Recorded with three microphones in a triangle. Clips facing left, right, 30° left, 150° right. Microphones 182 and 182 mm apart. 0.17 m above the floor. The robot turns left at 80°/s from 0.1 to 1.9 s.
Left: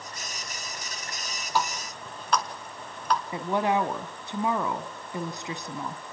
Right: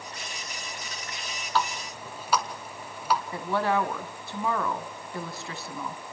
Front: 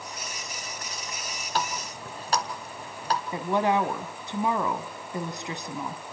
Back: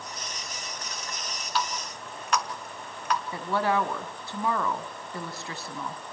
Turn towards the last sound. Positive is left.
turn(degrees=60)